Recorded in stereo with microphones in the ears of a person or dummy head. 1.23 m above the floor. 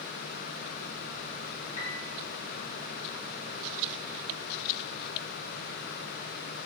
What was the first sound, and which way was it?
A piano, 40° left (ahead or behind).